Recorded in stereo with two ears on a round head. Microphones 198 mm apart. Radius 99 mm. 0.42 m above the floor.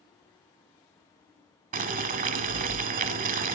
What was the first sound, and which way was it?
Boiling, 35° right (ahead or behind).